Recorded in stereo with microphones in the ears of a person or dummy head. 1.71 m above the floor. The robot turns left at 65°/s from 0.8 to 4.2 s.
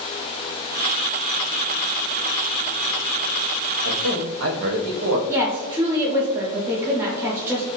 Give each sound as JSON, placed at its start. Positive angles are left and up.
{"t": 3.8, "sound": "a man speaking", "side_deg": -85, "distance_m": 0.6}
{"t": 5.3, "sound": "a woman speaking", "side_deg": -15, "distance_m": 0.6}